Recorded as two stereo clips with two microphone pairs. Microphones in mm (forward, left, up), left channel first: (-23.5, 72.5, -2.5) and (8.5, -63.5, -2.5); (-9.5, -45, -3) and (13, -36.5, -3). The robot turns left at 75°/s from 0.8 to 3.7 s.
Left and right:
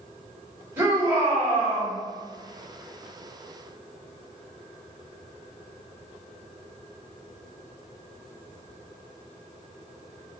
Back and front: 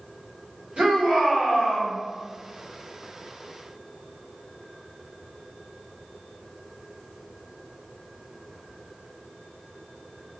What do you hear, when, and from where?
0.8 s a shout: straight ahead, 1.7 m; by 1.9 s 85° right, 1.7 m